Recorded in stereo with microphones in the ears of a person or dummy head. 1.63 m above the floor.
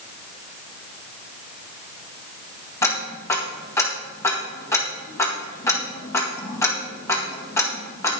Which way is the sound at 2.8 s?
10° left (ahead or behind).